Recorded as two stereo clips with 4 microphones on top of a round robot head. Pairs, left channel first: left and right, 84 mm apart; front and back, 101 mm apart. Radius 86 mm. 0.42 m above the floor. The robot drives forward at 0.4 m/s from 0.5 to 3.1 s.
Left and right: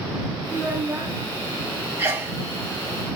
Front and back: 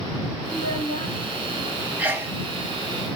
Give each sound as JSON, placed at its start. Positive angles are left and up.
{"t": 0.5, "sound": "a child speaking", "azimuth_deg": -35, "distance_m": 2.0}
{"t": 2.0, "sound": "a sneeze", "azimuth_deg": -120, "distance_m": 0.8}